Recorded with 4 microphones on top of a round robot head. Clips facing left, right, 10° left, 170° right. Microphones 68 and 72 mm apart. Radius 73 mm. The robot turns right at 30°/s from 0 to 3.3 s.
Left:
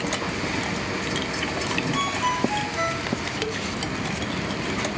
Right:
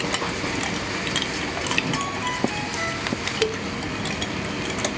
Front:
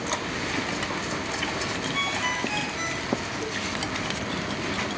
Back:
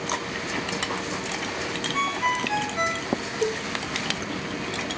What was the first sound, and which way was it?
A ringtone, 115° left.